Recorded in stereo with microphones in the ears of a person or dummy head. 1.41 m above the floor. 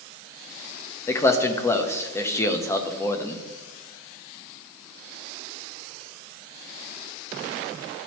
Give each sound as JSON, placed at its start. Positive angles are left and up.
{"t": 1.1, "sound": "a man speaking", "side_deg": 15, "distance_m": 0.7}